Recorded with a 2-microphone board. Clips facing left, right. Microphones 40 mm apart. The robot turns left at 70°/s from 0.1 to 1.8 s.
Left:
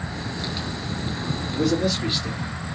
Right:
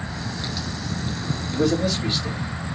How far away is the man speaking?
About 1.8 m.